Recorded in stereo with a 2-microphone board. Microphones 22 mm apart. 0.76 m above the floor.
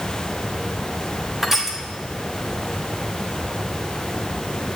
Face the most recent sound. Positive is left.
turn(degrees=-15)  # may be behind; listen again after turning